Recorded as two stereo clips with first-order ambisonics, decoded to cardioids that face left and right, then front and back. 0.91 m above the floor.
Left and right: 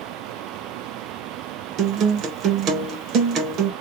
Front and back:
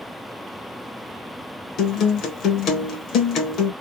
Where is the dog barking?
No dog barking in this recording.